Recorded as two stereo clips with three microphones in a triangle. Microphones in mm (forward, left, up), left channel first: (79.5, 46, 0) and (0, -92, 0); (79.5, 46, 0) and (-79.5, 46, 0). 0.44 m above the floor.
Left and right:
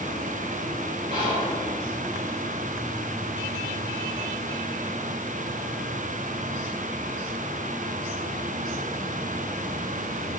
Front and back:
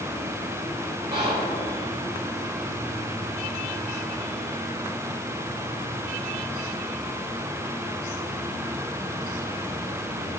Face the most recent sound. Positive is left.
turn(degrees=-150)